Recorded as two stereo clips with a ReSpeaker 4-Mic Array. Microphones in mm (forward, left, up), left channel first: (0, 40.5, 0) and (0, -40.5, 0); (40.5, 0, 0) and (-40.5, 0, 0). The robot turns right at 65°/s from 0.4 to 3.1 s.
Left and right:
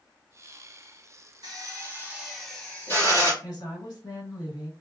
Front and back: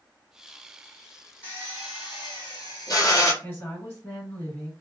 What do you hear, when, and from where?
1.4 s a drill: 60° right, 1.2 m; by 3.3 s 45° left, 1.2 m
3.4 s a woman speaking: 55° left, 1.7 m